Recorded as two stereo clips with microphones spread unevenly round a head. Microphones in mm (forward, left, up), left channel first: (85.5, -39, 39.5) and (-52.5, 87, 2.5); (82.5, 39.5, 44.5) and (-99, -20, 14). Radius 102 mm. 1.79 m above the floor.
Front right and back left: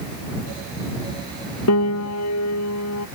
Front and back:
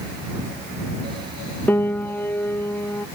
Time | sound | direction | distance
1.7 | a piano | 65° right | ?